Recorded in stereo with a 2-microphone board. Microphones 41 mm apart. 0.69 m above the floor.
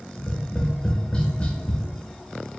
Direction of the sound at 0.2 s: 25° left (ahead or behind).